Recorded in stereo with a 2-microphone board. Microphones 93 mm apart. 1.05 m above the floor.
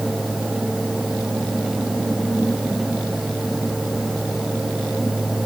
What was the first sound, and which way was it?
Only background noise.